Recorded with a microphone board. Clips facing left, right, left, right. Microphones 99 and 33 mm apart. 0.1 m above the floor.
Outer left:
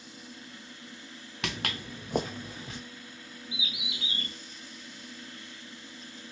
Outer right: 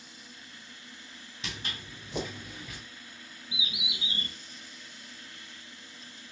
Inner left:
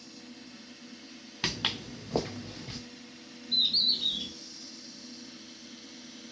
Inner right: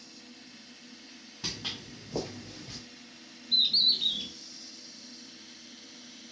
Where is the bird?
20° right (ahead or behind), 0.8 m.